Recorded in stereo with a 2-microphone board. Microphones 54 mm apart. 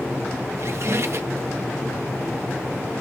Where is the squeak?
55° right (ahead or behind), 0.6 m.